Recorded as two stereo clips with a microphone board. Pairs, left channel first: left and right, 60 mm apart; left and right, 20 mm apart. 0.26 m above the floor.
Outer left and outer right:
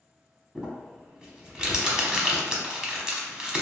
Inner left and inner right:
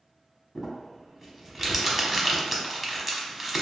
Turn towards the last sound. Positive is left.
turn(degrees=-10)  # may be behind; listen again after turning